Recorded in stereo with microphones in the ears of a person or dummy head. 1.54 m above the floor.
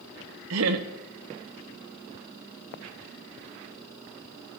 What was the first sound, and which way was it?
Laughter, 75° right (ahead or behind).